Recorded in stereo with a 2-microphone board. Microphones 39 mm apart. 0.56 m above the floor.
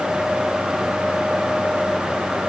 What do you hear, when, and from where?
Only background noise.